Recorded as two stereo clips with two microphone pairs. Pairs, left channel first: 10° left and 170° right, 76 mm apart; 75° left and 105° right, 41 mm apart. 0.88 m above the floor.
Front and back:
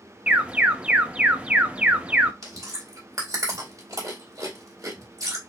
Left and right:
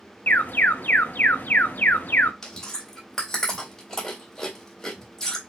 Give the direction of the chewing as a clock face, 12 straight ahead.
7 o'clock.